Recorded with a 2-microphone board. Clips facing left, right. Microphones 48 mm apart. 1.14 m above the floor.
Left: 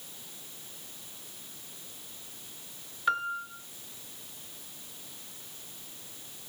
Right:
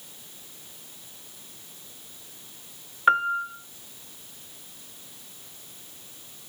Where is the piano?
35° right (ahead or behind), 0.9 m.